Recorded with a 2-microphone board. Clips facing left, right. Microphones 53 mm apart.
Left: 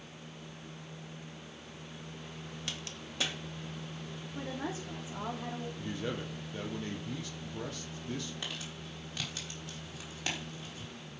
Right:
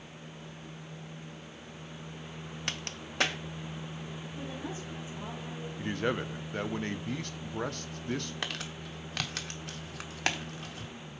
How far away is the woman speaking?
About 3.5 m.